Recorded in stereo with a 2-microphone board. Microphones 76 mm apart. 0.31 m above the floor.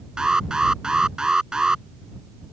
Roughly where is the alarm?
Centre.